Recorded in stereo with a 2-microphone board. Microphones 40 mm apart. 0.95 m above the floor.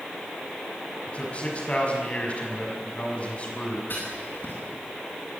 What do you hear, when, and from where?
1.1 s a man speaking: 30° left (ahead or behind), 6 m
3.9 s writing: 55° left (ahead or behind), 9.5 m